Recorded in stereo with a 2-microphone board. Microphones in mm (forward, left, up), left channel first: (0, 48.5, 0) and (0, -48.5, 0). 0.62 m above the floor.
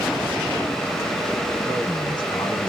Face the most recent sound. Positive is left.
turn(degrees=55)  # may be behind; listen again after turning